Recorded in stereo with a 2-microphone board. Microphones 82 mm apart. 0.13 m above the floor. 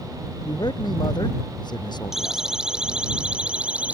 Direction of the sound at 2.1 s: 5° right (ahead or behind).